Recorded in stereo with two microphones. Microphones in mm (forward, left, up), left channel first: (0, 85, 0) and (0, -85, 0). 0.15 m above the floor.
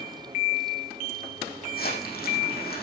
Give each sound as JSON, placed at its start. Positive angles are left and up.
{"t": 1.7, "sound": "crumpling", "side_deg": 65, "distance_m": 6.5}